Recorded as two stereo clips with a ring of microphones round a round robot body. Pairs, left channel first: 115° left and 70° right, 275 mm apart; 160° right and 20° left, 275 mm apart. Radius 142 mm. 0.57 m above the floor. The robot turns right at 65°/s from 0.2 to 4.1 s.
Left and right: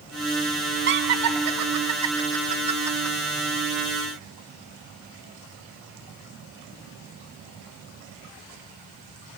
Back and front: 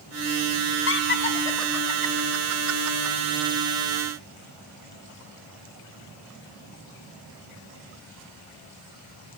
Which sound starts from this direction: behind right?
Laughter, at 0.9 s.